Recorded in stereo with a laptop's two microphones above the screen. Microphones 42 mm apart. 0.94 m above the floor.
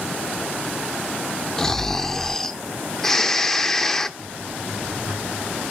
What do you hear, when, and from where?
1.6 s snoring: 10° left (ahead or behind), 0.6 m
4.2 s a buzzer: 80° right, 8 m